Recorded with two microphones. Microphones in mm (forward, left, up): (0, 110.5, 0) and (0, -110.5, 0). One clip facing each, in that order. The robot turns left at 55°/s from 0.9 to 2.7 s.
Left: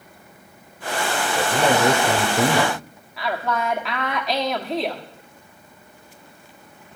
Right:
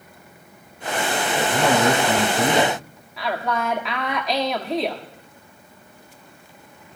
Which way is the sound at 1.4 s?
160° left.